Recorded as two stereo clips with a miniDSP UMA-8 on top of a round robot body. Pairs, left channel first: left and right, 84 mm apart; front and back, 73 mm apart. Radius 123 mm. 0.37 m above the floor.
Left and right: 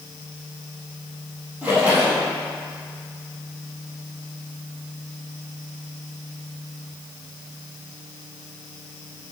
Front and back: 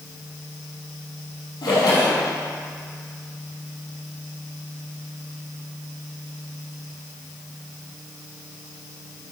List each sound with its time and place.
1.6 s a splash: 20° right, 3.5 m